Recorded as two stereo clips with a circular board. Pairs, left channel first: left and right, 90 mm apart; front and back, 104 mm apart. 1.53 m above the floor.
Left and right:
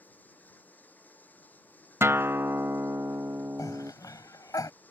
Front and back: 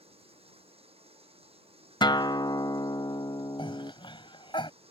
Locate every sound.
0.0 s running water: 160° left
2.0 s a guitar: 35° right
3.6 s a cough: 40° left